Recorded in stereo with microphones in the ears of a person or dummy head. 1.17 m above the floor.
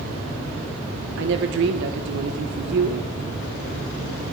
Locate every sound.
1.2 s a woman speaking: 65° right (ahead or behind), 1.0 m